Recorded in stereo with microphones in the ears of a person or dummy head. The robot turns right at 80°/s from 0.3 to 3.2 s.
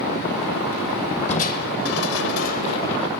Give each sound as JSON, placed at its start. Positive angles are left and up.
{"t": 1.3, "sound": "crushing", "azimuth_deg": 40, "distance_m": 1.2}